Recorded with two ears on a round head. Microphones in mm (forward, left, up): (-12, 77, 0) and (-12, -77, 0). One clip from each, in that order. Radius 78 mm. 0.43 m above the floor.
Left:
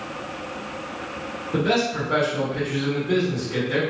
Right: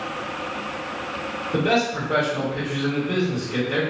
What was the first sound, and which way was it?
A man speaking, 15° left (ahead or behind).